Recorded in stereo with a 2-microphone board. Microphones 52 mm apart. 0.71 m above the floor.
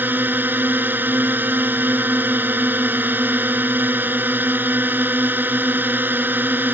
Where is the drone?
45° right (ahead or behind).